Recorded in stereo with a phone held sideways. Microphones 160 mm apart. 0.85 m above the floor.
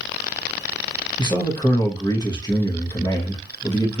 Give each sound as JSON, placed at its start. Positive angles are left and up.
{"t": 1.2, "sound": "a man speaking", "side_deg": 25, "distance_m": 0.8}